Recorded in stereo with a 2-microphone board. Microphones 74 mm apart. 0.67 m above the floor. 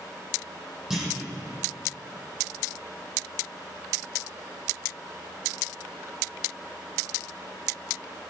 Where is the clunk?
5° right (ahead or behind), 6 m.